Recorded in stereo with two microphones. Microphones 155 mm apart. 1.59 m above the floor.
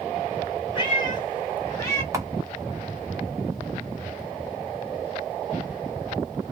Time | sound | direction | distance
0.8 | a cat meowing | 30° left (ahead or behind) | 1.8 m
2.1 | a camera shutter | 20° right (ahead or behind) | 0.9 m